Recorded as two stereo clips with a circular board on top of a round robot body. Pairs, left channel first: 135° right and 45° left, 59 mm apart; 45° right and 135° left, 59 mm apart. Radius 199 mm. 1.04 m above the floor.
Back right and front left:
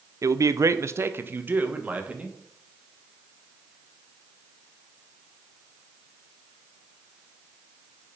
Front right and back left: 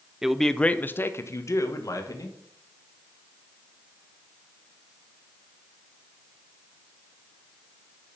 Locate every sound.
0.2 s a man speaking: 55° left, 0.8 m; by 2.4 s 25° right, 1.8 m